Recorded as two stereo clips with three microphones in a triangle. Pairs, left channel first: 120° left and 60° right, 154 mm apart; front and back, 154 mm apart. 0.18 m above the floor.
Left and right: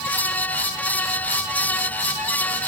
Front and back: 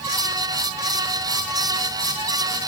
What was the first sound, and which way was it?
Only background noise.